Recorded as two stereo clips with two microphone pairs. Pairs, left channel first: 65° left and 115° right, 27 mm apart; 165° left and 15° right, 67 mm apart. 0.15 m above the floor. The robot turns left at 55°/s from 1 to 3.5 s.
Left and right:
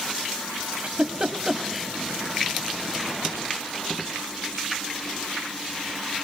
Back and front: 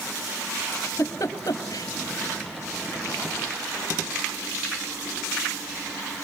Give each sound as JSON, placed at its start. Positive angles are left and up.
{"t": 0.7, "sound": "a giggle", "azimuth_deg": -150, "distance_m": 2.0}